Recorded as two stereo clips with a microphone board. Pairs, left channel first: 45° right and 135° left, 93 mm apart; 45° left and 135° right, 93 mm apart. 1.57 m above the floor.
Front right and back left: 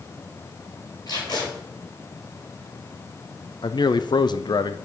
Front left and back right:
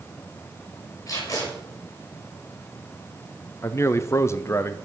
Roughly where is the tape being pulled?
Ahead.